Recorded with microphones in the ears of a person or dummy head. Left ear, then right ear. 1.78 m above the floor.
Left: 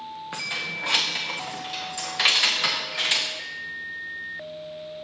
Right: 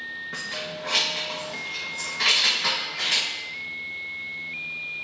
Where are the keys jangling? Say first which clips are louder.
Left 6 dB; 25° left (ahead or behind), 1.0 m.